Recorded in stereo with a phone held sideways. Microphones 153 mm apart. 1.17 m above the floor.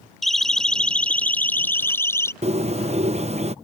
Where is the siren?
Centre (ahead or behind); by 2.3 s 15° left (ahead or behind).